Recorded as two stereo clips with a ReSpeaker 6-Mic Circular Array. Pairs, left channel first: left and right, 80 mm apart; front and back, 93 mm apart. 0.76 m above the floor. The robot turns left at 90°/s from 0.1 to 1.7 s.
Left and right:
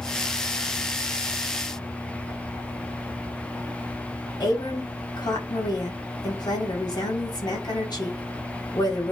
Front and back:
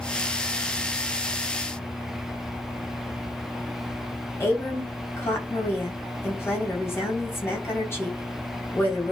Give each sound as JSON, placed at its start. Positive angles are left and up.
{"t": 4.4, "sound": "a woman speaking", "azimuth_deg": 60, "distance_m": 5.0}